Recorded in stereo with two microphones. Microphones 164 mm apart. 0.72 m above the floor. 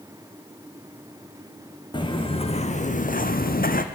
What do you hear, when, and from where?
1.9 s footsteps: 30° left (ahead or behind), 2.5 m; by 3.9 s 60° left (ahead or behind), 1.6 m